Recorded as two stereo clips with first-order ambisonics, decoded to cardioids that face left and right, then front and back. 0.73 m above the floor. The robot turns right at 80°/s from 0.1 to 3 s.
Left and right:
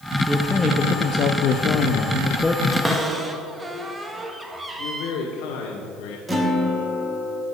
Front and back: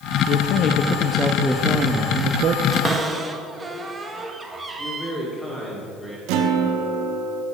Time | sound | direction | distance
0.3 | a man speaking | 10° right | 0.6 m
2.7 | a cupboard door | 160° right | 1.1 m
4.8 | a man speaking | 95° left | 1.7 m
6.3 | a guitar | 170° right | 1.4 m